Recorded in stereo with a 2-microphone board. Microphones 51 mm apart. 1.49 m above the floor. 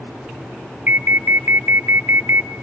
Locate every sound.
0.9 s an alarm: 35° right (ahead or behind), 0.7 m